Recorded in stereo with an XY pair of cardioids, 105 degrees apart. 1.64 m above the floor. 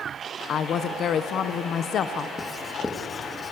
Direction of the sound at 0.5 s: 60° left.